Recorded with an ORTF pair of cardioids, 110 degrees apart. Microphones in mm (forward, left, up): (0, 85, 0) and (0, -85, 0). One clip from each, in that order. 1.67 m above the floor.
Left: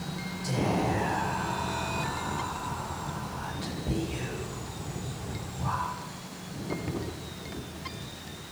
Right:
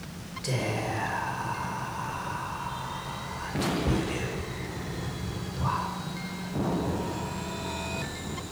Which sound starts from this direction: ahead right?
Whispering, at 0.4 s.